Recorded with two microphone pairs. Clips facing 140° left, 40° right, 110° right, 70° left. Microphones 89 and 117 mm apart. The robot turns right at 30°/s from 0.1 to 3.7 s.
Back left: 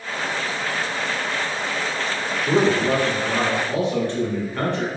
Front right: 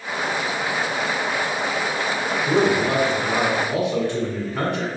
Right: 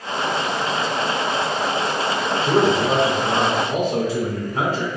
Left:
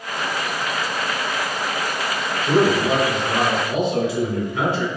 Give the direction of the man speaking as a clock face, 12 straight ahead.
5 o'clock.